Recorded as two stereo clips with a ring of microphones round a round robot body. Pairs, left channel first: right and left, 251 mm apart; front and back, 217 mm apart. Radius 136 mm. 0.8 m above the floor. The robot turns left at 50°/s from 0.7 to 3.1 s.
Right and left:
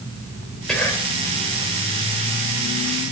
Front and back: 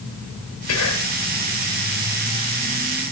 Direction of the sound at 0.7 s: Straight ahead.